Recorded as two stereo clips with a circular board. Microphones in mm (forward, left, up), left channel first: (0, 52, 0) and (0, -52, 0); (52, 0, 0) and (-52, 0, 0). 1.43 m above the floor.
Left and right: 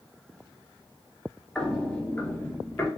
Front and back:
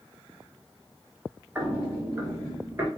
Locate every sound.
1.6 s footsteps: 165° left, 1.4 m; by 2.9 s 130° left, 1.7 m